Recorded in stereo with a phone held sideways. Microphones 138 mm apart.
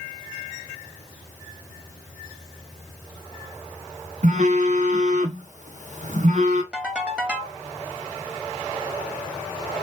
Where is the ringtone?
5° right (ahead or behind), 1.2 m.